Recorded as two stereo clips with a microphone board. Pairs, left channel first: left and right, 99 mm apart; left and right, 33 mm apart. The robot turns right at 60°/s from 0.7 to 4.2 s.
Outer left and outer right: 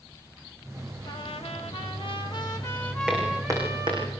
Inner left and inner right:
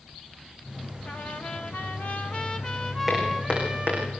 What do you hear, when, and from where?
1.1 s a trumpet: 50° left, 1.5 m; by 4.1 s 125° right, 1.5 m
3.1 s footsteps: 15° right (ahead or behind), 6 m; by 4.0 s 65° right (ahead or behind), 6 m